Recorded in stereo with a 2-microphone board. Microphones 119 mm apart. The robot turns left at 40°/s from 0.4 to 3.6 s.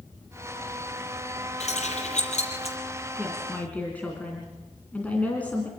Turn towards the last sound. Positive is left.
turn(degrees=15)  # may be behind; listen again after turning